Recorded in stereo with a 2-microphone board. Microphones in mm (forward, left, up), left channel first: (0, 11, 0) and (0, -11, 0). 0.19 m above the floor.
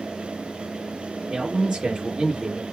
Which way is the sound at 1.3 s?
25° right (ahead or behind).